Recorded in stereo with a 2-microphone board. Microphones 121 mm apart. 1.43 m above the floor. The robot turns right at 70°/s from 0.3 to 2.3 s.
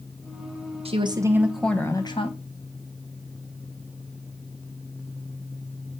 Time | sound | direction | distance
0.8 | a woman speaking | 50° right | 1.0 m